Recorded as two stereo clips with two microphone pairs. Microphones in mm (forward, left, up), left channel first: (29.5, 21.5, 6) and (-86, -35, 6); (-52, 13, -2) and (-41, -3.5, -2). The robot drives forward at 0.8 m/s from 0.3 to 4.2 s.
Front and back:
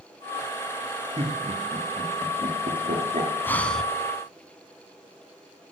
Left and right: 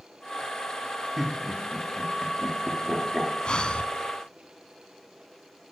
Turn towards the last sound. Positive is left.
turn(degrees=125)